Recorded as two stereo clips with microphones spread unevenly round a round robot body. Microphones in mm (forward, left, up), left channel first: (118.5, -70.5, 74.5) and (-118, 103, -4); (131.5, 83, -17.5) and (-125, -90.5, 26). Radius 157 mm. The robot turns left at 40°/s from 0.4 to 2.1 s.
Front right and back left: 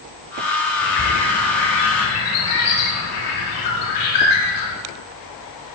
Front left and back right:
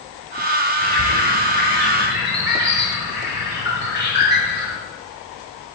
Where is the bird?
15° right, 5.5 m; by 4.7 s 65° right, 5.5 m.